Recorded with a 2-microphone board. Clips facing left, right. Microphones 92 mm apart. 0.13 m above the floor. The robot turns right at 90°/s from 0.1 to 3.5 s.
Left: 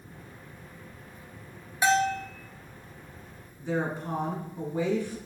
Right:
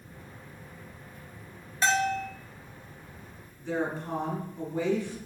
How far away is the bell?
About 0.6 m.